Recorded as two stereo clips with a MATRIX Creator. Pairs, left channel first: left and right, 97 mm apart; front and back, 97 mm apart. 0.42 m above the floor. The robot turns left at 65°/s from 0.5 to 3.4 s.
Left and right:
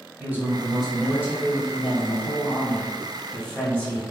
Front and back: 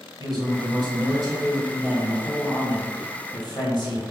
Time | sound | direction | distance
0.2 | a man speaking | 160° right | 2.0 m